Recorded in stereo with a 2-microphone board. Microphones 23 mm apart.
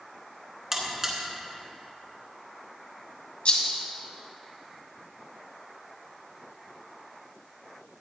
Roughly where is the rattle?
Left.